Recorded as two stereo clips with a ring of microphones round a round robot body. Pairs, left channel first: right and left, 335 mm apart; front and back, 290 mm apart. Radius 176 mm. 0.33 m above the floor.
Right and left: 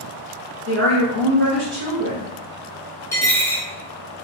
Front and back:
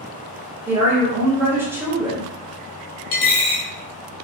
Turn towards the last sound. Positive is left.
turn(degrees=-10)